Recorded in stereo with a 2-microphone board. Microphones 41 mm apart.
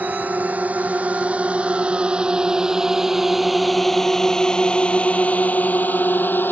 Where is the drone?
40° right (ahead or behind); by 6.5 s 55° left (ahead or behind).